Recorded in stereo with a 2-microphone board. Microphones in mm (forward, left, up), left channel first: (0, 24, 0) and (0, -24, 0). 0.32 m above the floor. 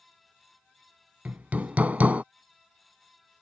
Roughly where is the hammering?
Right.